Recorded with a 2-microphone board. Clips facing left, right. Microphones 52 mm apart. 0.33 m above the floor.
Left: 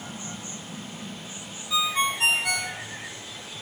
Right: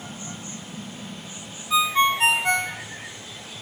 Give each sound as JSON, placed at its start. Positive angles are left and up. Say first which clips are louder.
{"t": 1.7, "sound": "a ringtone", "louder": "right 5 dB", "side_deg": -30, "distance_m": 0.6}